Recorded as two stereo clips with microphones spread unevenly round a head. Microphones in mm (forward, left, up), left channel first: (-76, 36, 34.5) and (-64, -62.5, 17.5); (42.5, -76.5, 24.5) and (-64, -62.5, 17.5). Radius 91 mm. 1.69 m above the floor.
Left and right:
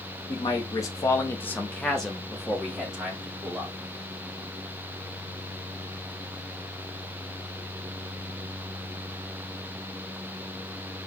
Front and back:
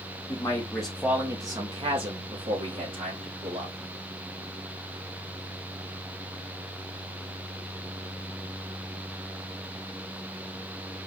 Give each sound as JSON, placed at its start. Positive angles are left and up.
{"t": 0.3, "sound": "a man speaking", "azimuth_deg": 55, "distance_m": 1.0}